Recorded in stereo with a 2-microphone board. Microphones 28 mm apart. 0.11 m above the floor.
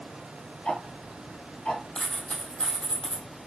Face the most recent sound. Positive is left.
turn(degrees=40)  # may be behind; listen again after turning